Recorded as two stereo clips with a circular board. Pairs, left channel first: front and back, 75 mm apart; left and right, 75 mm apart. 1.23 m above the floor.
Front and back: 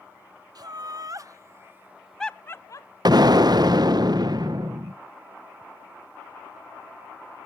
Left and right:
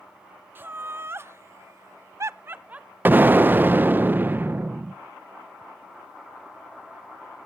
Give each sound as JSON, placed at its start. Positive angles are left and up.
{"t": 0.6, "sound": "laughter", "azimuth_deg": -150, "distance_m": 1.3}
{"t": 3.0, "sound": "an explosion", "azimuth_deg": -155, "distance_m": 0.6}